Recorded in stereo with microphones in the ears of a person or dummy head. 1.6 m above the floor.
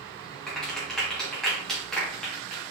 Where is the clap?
Centre (ahead or behind), 2.5 m.